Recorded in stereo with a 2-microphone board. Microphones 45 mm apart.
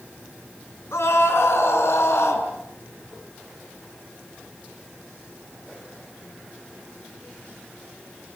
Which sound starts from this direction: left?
A scream, at 0.9 s.